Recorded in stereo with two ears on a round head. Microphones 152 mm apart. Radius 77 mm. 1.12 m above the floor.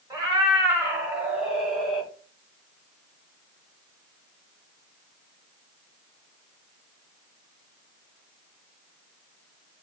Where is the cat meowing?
20° right (ahead or behind), 1.0 m; by 2.1 s 5° left (ahead or behind), 1.0 m.